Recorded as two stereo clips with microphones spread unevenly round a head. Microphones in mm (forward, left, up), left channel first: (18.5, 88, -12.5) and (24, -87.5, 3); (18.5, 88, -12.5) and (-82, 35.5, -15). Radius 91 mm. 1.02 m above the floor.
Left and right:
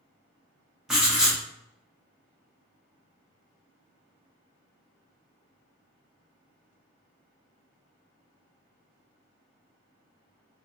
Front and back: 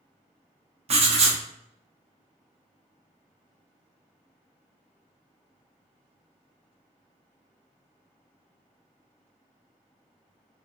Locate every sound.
0.9 s writing: 170° right, 0.7 m